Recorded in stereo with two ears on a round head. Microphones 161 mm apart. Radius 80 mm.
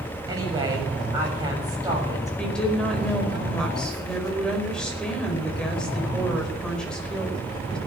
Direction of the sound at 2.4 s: 5° left (ahead or behind).